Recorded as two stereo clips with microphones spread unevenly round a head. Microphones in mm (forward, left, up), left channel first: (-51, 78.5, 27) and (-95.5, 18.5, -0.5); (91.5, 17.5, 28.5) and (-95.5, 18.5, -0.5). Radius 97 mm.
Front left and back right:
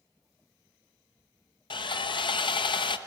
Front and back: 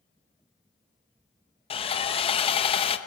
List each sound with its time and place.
1.7 s sawing: 65° left, 1.0 m